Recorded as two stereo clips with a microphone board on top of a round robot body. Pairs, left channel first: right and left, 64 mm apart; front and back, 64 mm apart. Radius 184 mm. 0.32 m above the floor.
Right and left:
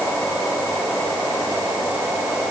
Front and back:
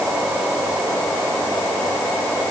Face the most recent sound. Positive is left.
No sound to turn to.